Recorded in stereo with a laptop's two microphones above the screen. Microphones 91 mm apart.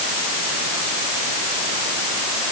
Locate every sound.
Only background noise.